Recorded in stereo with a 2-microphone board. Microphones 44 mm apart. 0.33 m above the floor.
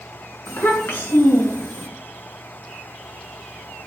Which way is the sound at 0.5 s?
60° left (ahead or behind).